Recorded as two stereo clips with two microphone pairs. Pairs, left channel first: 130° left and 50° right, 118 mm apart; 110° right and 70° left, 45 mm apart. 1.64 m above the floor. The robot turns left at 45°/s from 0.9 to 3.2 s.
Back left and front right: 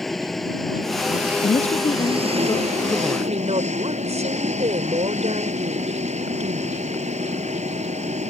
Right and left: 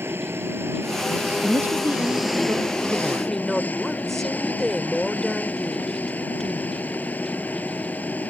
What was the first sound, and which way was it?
An engine running, 45° left.